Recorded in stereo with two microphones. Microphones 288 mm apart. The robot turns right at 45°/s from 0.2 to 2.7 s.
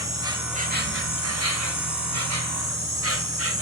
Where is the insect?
170° right, 0.7 m; by 3.6 s 55° right, 0.7 m.